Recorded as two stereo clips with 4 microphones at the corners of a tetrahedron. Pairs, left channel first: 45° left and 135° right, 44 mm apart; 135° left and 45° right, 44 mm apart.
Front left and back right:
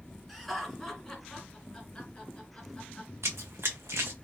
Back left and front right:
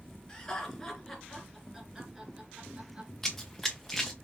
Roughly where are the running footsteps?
Behind right.